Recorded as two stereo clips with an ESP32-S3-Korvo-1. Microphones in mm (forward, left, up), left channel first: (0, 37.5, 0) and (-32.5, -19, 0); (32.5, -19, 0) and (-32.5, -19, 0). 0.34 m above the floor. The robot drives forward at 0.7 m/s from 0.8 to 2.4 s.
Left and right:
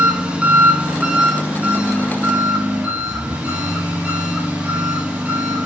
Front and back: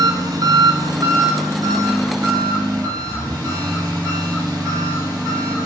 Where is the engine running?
170° left, 1.3 m; by 5.7 s 175° left, 2.5 m.